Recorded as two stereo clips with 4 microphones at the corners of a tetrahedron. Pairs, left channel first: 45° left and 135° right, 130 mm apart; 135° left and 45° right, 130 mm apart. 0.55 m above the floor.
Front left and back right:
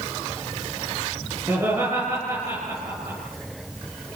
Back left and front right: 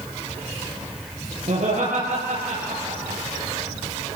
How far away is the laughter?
About 9 m.